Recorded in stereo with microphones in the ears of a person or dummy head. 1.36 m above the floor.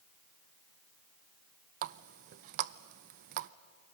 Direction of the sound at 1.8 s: 55° right (ahead or behind).